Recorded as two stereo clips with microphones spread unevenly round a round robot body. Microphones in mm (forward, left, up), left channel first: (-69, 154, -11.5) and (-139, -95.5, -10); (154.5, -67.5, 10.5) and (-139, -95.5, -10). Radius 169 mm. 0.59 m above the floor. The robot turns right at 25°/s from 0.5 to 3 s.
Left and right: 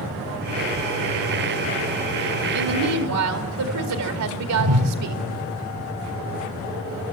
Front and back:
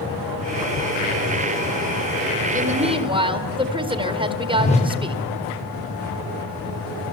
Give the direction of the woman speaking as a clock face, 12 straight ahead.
4 o'clock.